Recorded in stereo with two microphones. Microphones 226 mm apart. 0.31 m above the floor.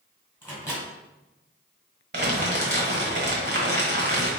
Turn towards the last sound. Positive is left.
turn(degrees=-50)  # may be behind; listen again after turning